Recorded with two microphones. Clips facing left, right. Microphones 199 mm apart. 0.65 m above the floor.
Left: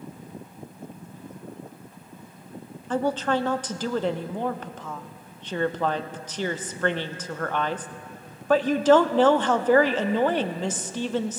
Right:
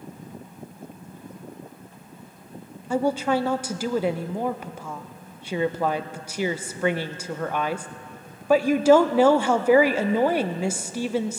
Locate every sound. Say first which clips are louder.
2.9 s a woman speaking: right 2 dB; 10° right (ahead or behind), 0.5 m